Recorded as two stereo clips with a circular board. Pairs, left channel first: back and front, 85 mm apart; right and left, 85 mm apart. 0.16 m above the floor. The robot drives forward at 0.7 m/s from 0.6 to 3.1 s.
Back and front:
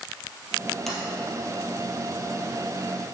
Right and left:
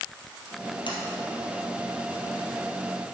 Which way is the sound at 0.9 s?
90° right.